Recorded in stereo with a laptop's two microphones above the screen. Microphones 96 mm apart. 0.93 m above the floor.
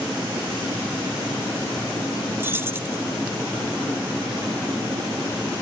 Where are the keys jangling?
25° right (ahead or behind), 2.5 m.